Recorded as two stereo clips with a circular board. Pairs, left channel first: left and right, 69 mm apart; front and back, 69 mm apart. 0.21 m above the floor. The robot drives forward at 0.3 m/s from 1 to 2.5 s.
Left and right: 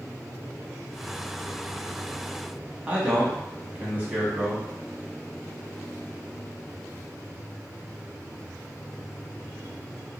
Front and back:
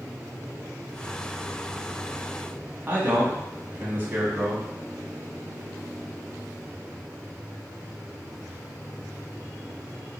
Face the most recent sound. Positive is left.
turn(degrees=-145)